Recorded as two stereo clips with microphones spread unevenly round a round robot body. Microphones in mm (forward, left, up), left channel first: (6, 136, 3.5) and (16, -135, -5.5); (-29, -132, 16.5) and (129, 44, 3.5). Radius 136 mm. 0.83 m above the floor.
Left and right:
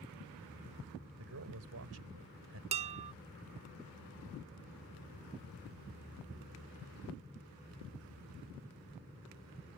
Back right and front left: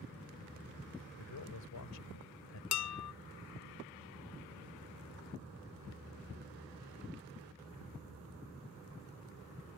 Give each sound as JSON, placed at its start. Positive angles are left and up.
{"t": 1.2, "sound": "a man speaking", "azimuth_deg": -125}
{"t": 2.7, "sound": "dishes clattering", "azimuth_deg": -155}